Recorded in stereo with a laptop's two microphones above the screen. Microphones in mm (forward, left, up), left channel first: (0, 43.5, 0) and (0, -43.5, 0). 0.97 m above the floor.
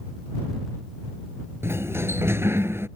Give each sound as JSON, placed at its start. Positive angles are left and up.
{"t": 1.6, "sound": "a sliding door", "side_deg": -30}